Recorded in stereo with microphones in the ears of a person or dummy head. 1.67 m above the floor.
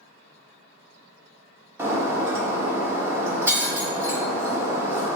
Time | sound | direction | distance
1.8 | breaking glass | 15° right (ahead or behind) | 1.5 m